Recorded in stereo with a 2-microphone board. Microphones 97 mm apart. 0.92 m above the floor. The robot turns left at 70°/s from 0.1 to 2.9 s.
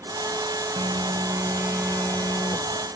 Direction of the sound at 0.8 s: 105° right.